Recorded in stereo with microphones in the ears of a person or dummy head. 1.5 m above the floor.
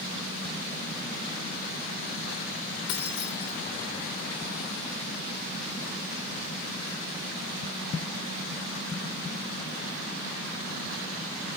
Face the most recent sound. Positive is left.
turn(degrees=60)  # may be behind; listen again after turning